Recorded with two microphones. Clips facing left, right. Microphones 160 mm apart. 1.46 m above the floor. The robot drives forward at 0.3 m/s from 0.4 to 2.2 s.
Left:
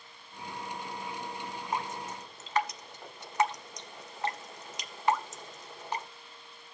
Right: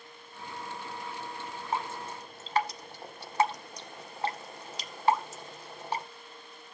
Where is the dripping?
25° right (ahead or behind), 0.9 m; by 6.0 s 30° right (ahead or behind), 0.8 m.